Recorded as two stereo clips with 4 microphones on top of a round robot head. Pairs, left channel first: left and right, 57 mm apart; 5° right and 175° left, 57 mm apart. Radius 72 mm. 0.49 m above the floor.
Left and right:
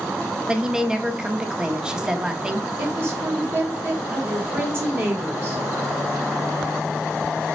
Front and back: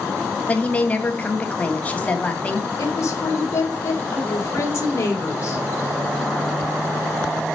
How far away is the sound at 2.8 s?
About 2 m.